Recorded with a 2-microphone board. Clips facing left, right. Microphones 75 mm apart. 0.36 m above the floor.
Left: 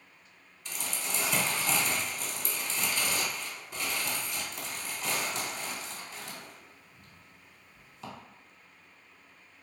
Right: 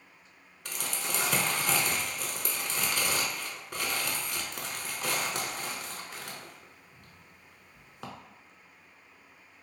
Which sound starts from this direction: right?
Crumpling, at 0.7 s.